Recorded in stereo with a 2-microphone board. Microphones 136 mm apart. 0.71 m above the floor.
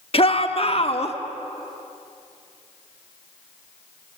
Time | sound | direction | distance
0.1 | a shout | 40° left (ahead or behind) | 1.4 m